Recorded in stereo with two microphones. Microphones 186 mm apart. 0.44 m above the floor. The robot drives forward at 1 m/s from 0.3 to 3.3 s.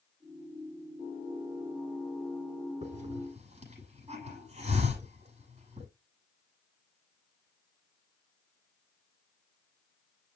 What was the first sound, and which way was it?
A hiss, 35° right (ahead or behind).